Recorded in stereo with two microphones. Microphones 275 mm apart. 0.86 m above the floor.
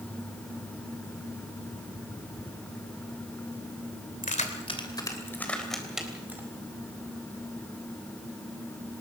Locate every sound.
4.2 s keys jangling: 30° left (ahead or behind), 2.5 m; by 6.4 s 5° right (ahead or behind), 4 m